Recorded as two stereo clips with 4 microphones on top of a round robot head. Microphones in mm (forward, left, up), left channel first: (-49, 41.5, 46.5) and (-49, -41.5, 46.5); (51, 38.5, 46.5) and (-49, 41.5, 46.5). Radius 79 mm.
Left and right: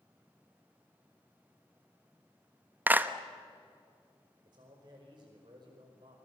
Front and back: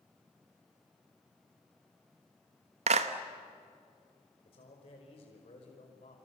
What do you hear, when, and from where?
2.9 s a clap: 160° right, 1.2 m
4.5 s a man speaking: 40° right, 5.5 m